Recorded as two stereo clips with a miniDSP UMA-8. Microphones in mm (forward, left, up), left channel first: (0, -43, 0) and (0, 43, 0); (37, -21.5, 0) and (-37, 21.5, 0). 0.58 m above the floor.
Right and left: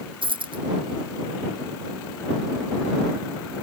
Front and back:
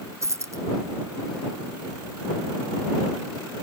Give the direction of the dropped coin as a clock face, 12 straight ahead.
9 o'clock.